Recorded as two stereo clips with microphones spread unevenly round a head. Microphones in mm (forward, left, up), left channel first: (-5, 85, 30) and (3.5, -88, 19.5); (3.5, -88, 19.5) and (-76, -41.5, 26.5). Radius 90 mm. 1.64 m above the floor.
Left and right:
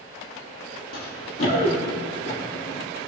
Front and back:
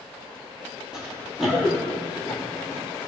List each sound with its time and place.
0.9 s running footsteps: 70° left, 3 m; by 2.8 s 50° left, 3 m